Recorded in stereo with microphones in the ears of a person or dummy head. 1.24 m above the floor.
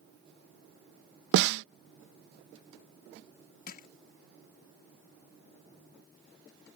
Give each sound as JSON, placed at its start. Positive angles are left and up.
{"t": 1.3, "sound": "a snare drum", "side_deg": -75}
{"t": 3.7, "sound": "crushing", "side_deg": 50}